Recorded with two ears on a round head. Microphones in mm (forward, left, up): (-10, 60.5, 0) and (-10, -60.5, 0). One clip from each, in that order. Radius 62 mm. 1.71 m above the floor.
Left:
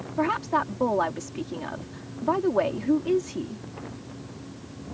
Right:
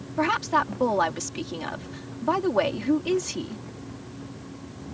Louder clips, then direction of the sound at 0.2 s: Right 2 dB; 55° right (ahead or behind).